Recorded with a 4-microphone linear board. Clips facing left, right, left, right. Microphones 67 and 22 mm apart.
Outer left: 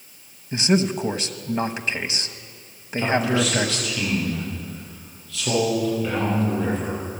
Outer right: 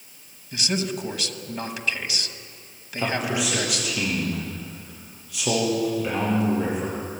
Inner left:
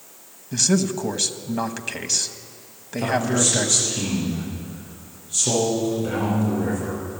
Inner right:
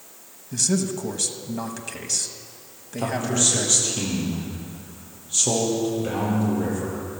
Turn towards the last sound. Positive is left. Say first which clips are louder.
# outer left 4 dB, inner left 2 dB
turn(degrees=-15)  # may be behind; listen again after turning